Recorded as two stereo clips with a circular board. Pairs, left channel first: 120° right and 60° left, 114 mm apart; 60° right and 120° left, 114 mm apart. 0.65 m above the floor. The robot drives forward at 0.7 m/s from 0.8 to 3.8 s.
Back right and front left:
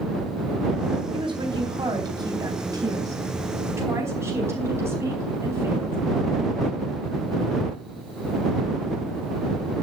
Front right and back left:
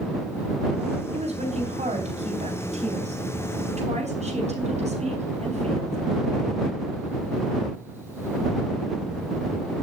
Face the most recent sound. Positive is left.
turn(degrees=125)